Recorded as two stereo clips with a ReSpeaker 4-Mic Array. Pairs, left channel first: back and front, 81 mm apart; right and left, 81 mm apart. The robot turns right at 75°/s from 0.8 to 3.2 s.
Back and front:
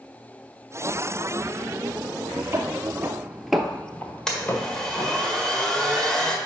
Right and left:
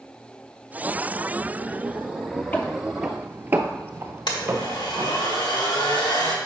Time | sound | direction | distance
2.5 | footsteps | 35° right | 0.9 m
4.3 | a blender | 100° right | 1.4 m